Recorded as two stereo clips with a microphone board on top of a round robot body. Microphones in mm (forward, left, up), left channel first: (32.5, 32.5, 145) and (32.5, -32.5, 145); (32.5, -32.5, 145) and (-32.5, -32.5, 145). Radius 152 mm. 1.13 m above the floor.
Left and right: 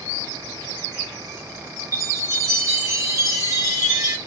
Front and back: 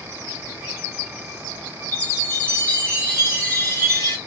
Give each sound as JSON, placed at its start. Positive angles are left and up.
{"t": 1.9, "sound": "a chime", "azimuth_deg": -60, "distance_m": 1.0}